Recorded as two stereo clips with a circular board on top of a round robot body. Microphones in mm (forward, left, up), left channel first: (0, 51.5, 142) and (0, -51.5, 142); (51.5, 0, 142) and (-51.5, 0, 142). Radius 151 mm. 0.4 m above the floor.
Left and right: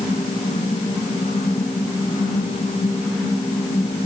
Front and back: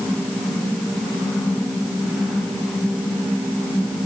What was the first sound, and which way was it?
Only background noise.